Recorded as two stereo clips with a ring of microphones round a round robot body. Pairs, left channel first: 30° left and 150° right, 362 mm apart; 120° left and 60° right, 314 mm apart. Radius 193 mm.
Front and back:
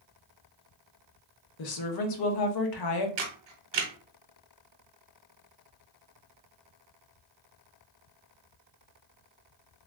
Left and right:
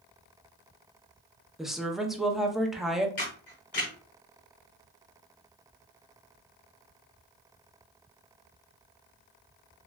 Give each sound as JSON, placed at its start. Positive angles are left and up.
{"t": 1.6, "sound": "a woman speaking", "azimuth_deg": 30, "distance_m": 0.8}
{"t": 3.2, "sound": "a camera shutter", "azimuth_deg": -170, "distance_m": 1.0}